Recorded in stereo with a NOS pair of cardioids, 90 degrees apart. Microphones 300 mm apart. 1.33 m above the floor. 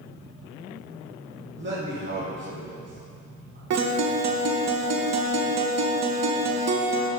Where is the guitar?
60° right, 1.0 m.